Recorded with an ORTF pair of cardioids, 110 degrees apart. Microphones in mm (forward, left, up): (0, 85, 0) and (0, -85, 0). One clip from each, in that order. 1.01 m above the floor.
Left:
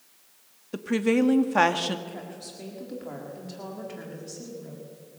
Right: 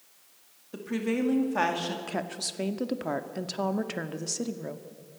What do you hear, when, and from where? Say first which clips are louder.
0.7 s a woman speaking: left 6 dB; 35° left, 2 m
2.1 s a woman speaking: right 7 dB; 65° right, 1.8 m